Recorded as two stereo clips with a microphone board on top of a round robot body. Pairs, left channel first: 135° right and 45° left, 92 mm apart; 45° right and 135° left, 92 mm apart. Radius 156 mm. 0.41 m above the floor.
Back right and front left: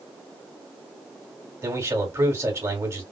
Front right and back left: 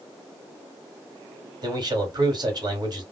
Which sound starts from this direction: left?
A man speaking, at 1.6 s.